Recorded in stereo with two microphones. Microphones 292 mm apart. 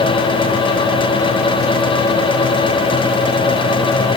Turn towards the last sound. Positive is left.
No sound to turn to.